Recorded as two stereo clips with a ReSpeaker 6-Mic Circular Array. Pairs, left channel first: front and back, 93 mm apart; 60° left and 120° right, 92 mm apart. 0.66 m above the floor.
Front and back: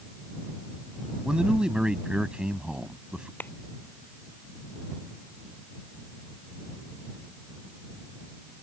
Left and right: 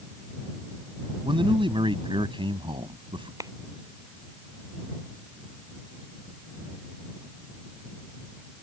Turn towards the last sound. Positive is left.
turn(degrees=-70)